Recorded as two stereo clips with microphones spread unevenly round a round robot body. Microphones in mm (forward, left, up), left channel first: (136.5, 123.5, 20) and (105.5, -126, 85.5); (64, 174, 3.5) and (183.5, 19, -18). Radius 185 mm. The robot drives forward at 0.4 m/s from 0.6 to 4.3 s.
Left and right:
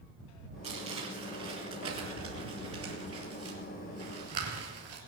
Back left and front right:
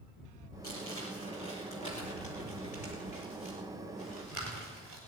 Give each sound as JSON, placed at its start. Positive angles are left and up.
{"t": 0.6, "sound": "crumpling", "azimuth_deg": -165, "distance_m": 1.6}